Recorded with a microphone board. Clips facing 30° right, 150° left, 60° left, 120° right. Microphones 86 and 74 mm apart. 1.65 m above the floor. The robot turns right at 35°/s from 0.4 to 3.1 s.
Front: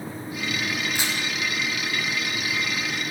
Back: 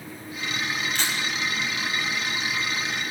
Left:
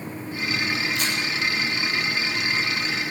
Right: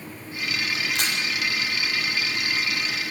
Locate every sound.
0.9 s a camera shutter: 110° right, 7.5 m; by 1.1 s 105° right, 7.5 m